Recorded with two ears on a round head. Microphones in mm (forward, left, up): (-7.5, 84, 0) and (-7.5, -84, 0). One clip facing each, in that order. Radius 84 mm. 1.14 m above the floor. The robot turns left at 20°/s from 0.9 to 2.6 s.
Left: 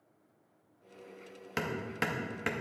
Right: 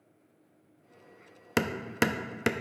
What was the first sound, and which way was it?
Hammering, 65° right (ahead or behind).